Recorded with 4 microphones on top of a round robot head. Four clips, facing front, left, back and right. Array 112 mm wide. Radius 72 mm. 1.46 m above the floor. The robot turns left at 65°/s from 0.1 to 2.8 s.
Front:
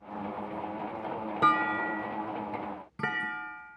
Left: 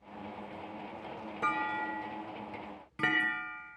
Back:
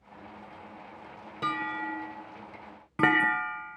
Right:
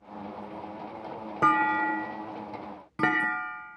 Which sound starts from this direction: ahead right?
A clunk, at 1.4 s.